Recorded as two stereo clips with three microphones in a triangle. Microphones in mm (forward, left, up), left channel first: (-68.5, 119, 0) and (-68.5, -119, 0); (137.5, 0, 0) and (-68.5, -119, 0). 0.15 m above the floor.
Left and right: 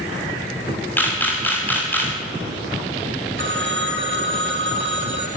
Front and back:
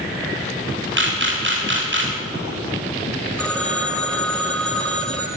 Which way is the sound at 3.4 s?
55° right.